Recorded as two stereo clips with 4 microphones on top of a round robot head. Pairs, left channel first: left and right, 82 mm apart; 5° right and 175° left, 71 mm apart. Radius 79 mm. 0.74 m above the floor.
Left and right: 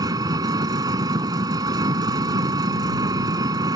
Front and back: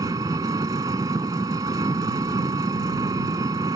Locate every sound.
0.0 s an engine running: 130° right